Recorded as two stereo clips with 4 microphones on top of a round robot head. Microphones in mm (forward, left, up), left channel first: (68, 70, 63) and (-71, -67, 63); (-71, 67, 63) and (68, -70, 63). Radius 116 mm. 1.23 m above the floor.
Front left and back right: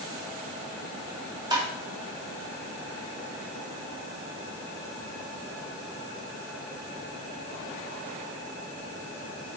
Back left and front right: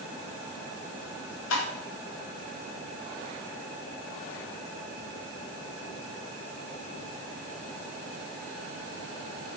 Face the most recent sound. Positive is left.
turn(degrees=155)